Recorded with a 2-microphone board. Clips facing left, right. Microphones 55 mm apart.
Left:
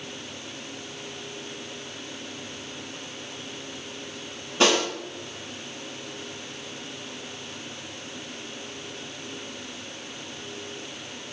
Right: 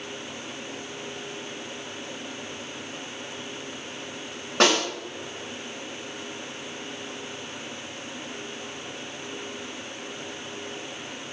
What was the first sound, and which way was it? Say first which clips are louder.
A snare drum: even; 75° right (ahead or behind).